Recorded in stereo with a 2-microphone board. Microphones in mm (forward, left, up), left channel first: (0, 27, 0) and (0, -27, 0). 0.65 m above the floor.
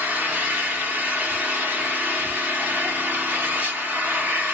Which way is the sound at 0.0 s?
30° right (ahead or behind).